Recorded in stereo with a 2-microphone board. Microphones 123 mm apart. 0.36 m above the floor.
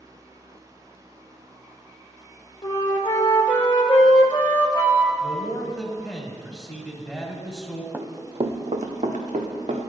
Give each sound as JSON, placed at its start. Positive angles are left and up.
{"t": 2.6, "sound": "a flute", "side_deg": 40, "distance_m": 0.8}
{"t": 5.2, "sound": "a man speaking", "side_deg": 10, "distance_m": 1.0}
{"t": 7.9, "sound": "running footsteps", "side_deg": -15, "distance_m": 0.7}